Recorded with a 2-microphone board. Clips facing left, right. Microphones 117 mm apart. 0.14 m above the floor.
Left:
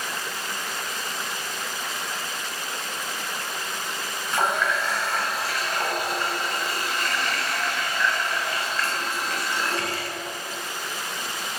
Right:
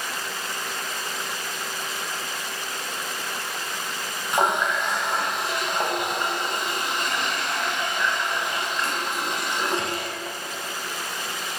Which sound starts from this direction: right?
A running tap, at 4.3 s.